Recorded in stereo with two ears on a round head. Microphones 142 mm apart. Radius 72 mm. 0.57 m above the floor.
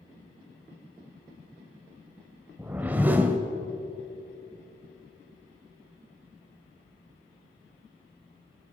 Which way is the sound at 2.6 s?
10° right (ahead or behind).